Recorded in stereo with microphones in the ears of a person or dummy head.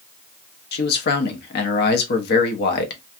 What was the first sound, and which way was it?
A man speaking, 60° left (ahead or behind).